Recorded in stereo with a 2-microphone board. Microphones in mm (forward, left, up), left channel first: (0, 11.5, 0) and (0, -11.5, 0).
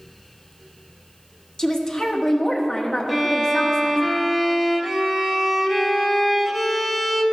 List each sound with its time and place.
1.6 s a woman speaking: 20° left (ahead or behind), 1.2 m
3.1 s a violin: 10° right (ahead or behind), 0.9 m